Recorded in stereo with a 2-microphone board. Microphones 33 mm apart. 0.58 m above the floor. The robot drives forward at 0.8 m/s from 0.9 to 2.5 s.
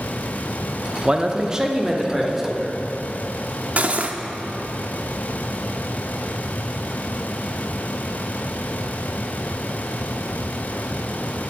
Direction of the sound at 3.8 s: 50° right (ahead or behind).